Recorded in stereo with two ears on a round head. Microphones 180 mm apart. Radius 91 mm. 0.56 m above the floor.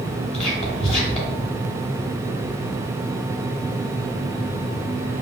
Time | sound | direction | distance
0.3 | whispering | 30° left (ahead or behind) | 1.5 m